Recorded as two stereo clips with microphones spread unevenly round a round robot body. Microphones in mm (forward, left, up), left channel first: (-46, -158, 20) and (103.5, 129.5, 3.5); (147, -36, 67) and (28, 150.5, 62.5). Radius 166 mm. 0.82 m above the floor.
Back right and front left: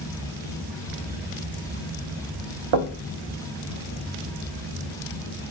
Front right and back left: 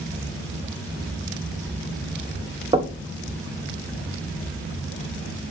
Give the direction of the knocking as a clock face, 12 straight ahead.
10 o'clock.